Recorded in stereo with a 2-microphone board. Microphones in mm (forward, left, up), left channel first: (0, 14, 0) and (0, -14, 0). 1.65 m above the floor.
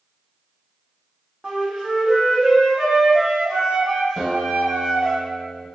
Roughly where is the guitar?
Centre.